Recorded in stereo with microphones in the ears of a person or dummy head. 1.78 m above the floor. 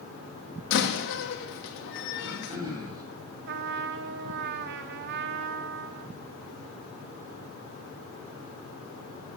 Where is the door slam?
70° left (ahead or behind), 2 m.